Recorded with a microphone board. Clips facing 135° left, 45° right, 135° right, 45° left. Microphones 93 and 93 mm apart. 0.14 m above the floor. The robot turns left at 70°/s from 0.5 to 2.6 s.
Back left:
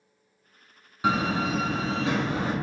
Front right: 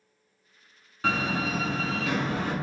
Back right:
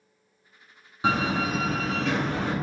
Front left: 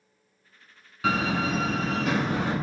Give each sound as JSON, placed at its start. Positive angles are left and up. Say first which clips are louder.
{"t": 1.0, "sound": "a door slam", "louder": "back left 3 dB, back right 1 dB", "azimuth_deg": -165, "distance_m": 0.9}